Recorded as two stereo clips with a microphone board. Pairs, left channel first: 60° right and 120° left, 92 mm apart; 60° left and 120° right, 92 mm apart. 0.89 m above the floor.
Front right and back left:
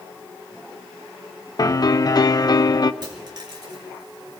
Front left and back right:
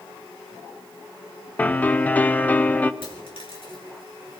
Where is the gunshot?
I don't hear a gunshot.